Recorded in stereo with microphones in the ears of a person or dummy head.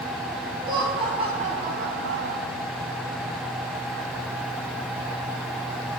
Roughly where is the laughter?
Right.